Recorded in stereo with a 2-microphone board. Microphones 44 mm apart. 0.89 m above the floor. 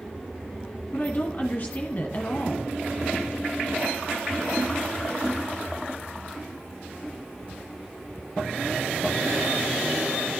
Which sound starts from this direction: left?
A woman speaking, at 0.9 s.